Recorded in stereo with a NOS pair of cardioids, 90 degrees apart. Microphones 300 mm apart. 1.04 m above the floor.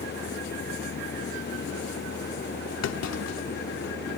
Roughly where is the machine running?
Ahead left.